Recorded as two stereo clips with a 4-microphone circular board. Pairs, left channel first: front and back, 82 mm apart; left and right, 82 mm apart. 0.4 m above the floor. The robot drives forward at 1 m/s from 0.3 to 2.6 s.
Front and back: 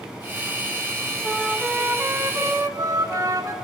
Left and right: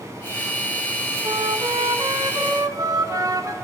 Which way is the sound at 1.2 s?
80° right.